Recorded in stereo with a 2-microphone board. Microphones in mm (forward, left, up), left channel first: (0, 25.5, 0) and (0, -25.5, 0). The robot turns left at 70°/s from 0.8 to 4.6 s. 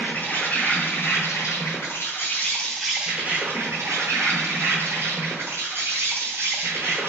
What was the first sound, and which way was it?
An insect, 140° left.